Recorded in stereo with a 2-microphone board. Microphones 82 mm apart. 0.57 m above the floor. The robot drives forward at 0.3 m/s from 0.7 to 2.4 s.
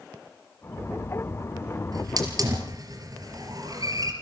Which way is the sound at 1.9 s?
55° right (ahead or behind).